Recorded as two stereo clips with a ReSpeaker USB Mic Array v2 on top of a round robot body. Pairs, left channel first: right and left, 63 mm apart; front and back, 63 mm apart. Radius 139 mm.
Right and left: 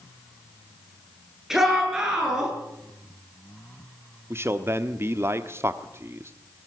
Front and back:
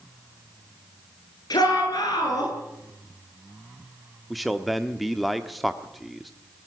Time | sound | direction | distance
1.5 | a shout | 5° left | 10 m
4.3 | a man speaking | 90° left | 1.3 m